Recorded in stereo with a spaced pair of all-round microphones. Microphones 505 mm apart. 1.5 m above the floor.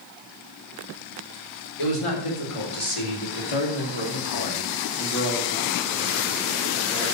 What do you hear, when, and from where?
1.8 s a man speaking: 85° left, 4.5 m; by 7.0 s 5° right (ahead or behind), 4.5 m